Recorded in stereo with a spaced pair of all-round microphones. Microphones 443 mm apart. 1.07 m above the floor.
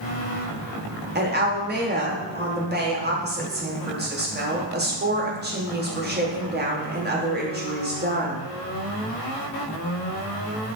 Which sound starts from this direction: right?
A woman speaking, at 1.1 s.